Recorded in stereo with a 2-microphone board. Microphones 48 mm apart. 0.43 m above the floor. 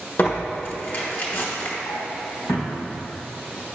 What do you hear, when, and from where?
0.2 s tearing paper: 50° left (ahead or behind), 1.1 m
1.9 s a drawer: 70° left (ahead or behind), 1.4 m